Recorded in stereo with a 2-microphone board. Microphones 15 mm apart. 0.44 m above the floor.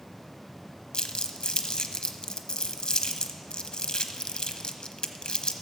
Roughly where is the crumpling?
Left.